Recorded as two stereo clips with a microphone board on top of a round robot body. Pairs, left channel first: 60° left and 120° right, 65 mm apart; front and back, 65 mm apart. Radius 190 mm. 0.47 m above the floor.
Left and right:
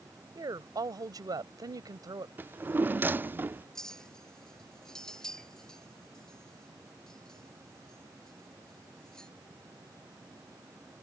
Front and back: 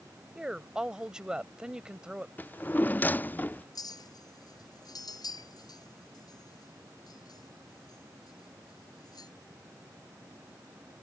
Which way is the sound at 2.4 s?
60° right.